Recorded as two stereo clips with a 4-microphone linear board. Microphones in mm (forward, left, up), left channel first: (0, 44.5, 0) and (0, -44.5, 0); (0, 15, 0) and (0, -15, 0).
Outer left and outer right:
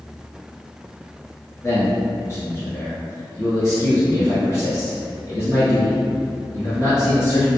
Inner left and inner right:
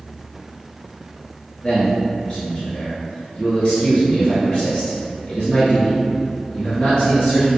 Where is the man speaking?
35° left (ahead or behind), 1.5 m.